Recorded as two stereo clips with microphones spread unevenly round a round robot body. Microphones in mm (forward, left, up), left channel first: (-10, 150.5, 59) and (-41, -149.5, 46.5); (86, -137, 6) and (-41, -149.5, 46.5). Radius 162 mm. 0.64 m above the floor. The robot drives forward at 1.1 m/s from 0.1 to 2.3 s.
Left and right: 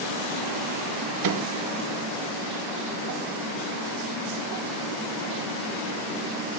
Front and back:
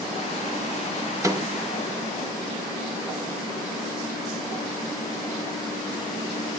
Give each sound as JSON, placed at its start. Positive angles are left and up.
{"t": 1.2, "sound": "a microwave", "azimuth_deg": -100, "distance_m": 1.6}